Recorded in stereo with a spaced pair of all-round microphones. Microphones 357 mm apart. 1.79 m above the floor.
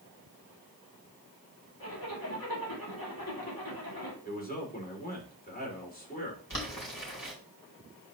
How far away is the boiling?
About 3 m.